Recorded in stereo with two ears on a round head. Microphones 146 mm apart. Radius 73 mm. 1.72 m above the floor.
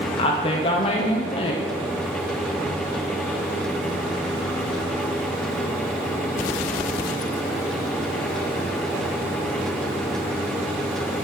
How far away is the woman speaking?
About 0.6 m.